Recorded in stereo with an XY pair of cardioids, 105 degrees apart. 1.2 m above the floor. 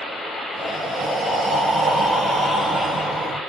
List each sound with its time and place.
0.5 s breathing: straight ahead, 1.6 m